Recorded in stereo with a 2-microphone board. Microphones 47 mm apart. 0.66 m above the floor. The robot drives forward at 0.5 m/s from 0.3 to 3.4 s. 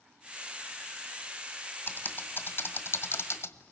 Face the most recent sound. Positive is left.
turn(degrees=70)  # may be behind; listen again after turning